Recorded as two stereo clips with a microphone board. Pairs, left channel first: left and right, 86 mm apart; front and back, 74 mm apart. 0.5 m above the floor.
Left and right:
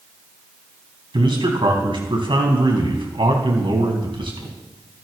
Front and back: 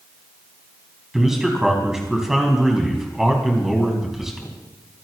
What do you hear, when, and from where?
1.1 s a man speaking: 95° right, 4 m